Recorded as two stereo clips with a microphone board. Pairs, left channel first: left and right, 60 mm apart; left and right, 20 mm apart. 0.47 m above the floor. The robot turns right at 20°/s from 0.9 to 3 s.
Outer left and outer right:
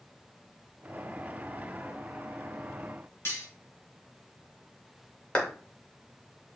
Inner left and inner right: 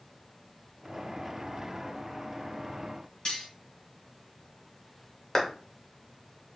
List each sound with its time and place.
3.2 s cutlery clinking: 40° left (ahead or behind), 2 m
5.3 s a clap: 20° left (ahead or behind), 1.3 m